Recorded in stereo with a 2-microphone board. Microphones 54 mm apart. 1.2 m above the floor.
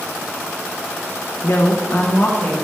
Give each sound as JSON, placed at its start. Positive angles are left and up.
{"t": 1.4, "sound": "a woman speaking", "side_deg": 60, "distance_m": 1.2}